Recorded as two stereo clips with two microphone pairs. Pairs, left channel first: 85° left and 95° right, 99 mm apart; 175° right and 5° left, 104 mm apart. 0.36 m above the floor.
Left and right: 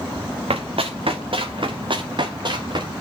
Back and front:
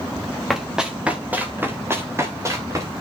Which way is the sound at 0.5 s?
85° right.